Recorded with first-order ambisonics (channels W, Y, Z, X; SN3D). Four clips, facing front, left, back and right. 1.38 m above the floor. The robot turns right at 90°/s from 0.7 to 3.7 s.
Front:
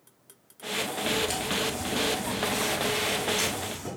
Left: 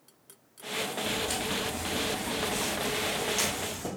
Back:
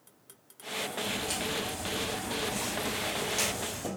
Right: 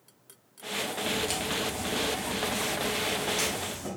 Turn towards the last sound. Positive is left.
turn(degrees=140)